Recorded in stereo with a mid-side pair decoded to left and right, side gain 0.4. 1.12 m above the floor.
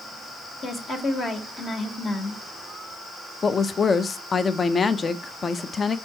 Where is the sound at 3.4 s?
40° left, 0.6 m.